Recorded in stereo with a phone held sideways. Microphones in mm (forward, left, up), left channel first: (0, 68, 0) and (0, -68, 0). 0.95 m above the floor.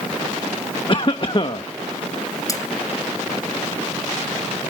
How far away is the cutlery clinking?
About 2 m.